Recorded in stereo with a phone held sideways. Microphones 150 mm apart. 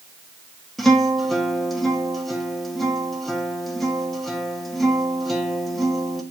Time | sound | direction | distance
0.8 | a guitar | centre (ahead or behind) | 1.6 m